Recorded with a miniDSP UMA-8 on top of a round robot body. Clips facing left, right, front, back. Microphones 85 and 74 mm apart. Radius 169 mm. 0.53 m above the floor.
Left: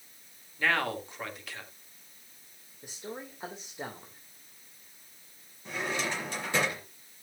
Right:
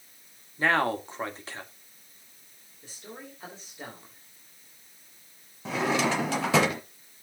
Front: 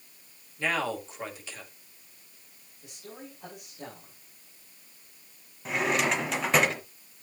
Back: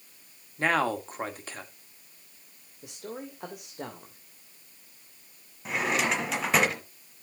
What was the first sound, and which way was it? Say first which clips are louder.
A man speaking: right 4 dB, back 4 dB; 145° right.